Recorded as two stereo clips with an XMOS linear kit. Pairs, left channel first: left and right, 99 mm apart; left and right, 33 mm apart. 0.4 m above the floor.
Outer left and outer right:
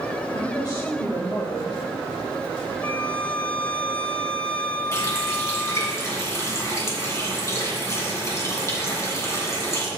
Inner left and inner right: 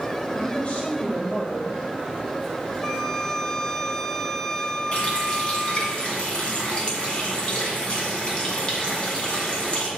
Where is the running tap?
30° left (ahead or behind), 2.5 m.